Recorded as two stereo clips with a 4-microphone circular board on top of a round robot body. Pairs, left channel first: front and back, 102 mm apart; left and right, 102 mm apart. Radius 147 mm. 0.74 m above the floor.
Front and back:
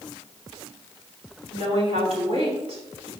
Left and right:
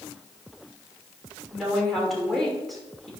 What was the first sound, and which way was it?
A woman speaking, straight behind.